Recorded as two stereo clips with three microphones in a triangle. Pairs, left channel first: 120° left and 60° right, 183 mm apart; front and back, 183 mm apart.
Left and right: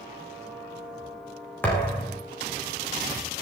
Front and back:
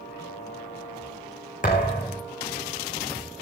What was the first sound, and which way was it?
A thud, 40° left.